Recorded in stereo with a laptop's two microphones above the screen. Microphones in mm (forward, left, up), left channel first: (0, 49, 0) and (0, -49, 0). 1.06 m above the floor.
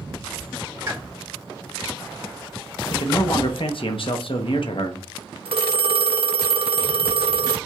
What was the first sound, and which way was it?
A pop, 35° right (ahead or behind).